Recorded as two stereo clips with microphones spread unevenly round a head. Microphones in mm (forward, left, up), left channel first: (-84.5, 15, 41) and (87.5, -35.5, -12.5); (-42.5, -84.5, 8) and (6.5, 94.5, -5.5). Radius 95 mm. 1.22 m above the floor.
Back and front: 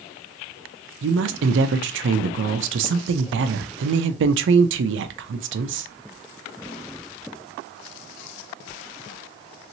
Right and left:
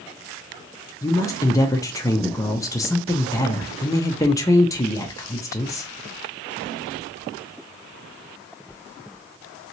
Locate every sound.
1.0 s a woman speaking: 30° right, 0.5 m